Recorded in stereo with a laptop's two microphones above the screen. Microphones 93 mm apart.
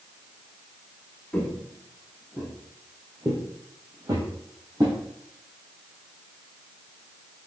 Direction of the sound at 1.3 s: 15° left (ahead or behind).